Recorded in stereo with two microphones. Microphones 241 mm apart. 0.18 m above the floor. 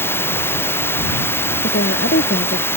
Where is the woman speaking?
60° left (ahead or behind).